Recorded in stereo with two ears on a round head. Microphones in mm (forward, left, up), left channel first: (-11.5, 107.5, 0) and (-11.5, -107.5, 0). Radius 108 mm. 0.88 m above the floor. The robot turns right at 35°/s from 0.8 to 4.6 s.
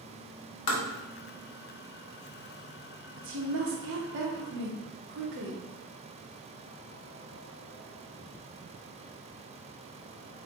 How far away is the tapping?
About 1.0 m.